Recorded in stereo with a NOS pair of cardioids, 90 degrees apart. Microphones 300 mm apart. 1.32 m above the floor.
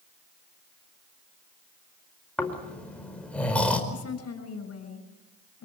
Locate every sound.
2.4 s snoring: 5° left, 4.5 m
3.9 s a woman speaking: 50° left, 6.5 m